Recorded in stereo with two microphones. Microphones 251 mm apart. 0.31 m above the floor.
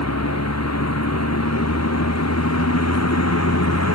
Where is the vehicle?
85° left; by 4.0 s 80° left.